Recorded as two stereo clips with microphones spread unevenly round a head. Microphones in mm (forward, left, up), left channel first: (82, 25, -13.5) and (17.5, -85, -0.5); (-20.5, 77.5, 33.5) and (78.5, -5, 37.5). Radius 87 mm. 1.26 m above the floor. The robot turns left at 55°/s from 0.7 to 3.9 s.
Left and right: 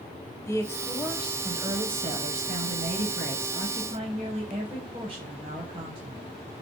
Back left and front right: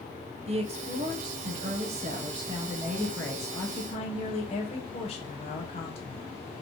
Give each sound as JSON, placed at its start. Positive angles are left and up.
{"t": 0.5, "sound": "a woman speaking", "azimuth_deg": -5, "distance_m": 0.9}